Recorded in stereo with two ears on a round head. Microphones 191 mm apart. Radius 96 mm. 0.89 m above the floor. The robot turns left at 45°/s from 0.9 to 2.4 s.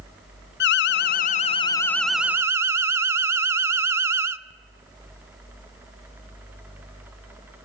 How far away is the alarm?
About 0.5 m.